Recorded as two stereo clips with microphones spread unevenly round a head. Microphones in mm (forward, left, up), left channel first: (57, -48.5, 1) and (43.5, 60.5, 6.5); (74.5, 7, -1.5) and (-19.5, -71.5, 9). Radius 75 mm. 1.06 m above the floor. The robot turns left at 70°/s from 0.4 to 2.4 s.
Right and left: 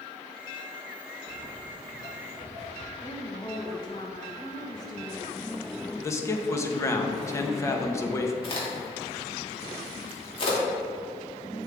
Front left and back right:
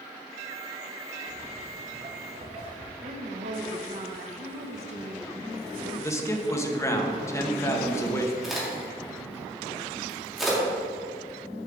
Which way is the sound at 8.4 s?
50° right.